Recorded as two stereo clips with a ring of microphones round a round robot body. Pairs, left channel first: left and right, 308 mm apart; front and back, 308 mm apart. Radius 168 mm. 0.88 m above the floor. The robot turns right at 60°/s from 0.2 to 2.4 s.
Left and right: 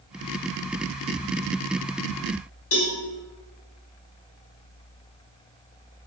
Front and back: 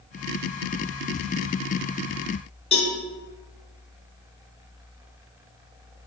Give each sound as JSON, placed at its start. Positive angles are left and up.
{"t": 2.7, "sound": "a cowbell", "azimuth_deg": 65, "distance_m": 1.2}